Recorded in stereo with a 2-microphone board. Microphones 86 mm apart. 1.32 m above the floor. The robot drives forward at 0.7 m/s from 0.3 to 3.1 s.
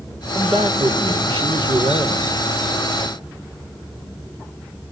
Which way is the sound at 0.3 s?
85° right.